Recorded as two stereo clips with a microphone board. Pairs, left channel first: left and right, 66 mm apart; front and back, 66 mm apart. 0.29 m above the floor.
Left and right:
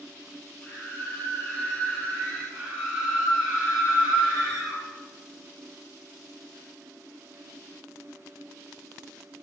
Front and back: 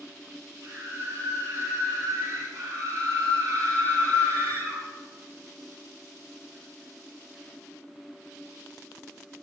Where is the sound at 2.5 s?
150° right, 5.5 m.